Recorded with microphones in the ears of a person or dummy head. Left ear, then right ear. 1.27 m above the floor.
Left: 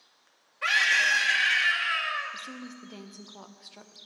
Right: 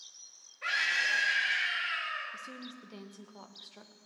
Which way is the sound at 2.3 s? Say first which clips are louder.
Left 4 dB; centre (ahead or behind).